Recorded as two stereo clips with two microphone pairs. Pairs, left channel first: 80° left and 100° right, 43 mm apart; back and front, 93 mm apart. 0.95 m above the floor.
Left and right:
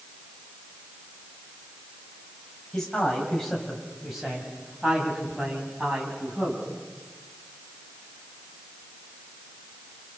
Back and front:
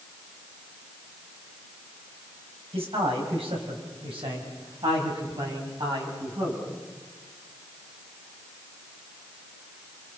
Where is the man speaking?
Straight ahead, 6.5 m; by 6.6 s 40° right, 8.5 m.